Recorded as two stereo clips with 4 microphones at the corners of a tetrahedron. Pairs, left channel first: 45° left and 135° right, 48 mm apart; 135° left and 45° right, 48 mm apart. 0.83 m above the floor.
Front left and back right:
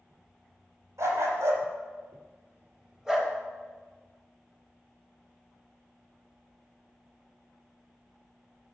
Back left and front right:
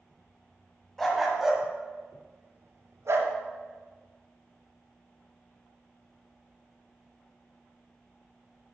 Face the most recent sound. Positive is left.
turn(degrees=-45)